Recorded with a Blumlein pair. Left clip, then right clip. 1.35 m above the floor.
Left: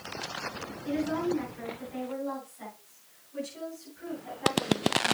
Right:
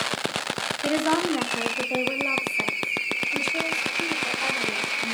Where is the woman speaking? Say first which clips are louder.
Right 7 dB; 45° right, 1.5 m; by 5.1 s 40° right, 5.5 m.